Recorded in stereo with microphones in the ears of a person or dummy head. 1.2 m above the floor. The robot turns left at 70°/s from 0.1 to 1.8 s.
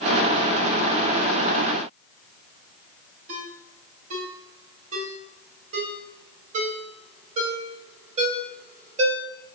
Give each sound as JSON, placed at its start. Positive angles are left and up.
{"t": 3.3, "sound": "a ringtone", "side_deg": -40, "distance_m": 2.5}